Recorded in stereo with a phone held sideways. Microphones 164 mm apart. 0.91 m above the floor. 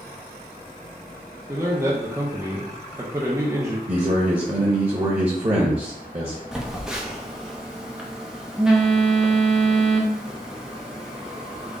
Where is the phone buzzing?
5° right (ahead or behind), 0.6 m.